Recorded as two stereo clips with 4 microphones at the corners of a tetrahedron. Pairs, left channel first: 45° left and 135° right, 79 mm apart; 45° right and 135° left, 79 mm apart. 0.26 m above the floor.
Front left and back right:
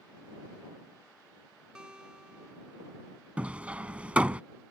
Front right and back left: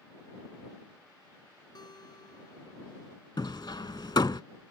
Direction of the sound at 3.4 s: 60° right.